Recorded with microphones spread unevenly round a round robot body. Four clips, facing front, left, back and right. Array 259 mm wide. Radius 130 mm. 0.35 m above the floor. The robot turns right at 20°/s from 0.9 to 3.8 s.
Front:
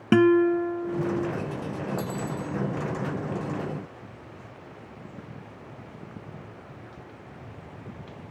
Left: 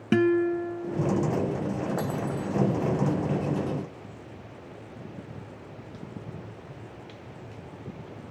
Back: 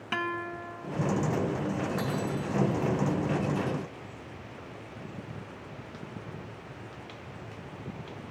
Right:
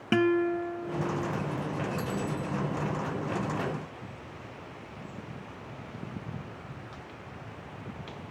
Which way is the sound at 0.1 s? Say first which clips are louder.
Left 3 dB, front 16 dB; 25° left.